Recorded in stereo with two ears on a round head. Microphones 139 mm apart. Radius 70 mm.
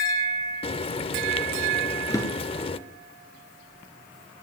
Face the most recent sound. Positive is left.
turn(degrees=20)  # may be behind; listen again after turning